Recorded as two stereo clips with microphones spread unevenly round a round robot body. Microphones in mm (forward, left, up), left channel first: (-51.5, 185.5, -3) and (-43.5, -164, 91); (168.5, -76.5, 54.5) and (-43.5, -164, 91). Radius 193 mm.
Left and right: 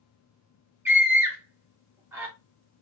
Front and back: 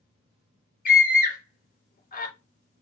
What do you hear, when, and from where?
0.8 s a scream: 10° left, 1.7 m